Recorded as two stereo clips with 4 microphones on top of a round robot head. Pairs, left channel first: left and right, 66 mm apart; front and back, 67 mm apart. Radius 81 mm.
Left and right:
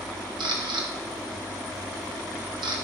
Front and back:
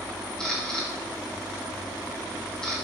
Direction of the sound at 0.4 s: 85° right.